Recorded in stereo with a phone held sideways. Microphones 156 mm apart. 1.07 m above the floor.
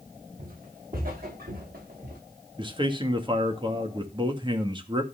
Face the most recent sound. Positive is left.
turn(degrees=-30)  # may be behind; listen again after turning